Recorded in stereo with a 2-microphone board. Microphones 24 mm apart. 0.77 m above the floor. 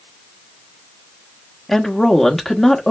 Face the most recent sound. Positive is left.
turn(degrees=5)  # may be behind; listen again after turning